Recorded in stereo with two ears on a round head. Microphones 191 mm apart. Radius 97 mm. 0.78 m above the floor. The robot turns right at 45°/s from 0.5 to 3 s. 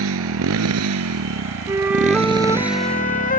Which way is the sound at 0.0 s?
105° right.